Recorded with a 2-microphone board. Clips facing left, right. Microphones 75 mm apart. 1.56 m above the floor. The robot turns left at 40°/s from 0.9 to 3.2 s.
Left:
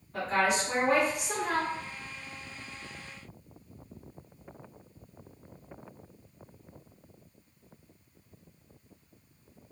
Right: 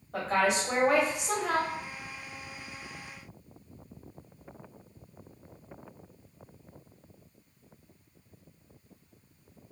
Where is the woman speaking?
80° right, 1.2 m; by 1.7 s 110° right, 1.2 m.